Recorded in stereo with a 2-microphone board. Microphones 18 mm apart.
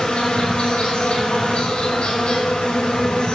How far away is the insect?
About 5.5 m.